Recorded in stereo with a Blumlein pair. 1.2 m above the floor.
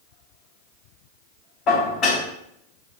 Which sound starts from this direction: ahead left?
Dishes clattering, at 1.7 s.